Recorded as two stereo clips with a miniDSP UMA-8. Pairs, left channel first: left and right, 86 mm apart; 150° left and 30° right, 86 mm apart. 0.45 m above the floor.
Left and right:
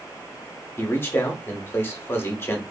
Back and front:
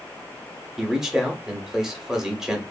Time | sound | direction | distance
0.8 | a man speaking | 50° left | 1.0 m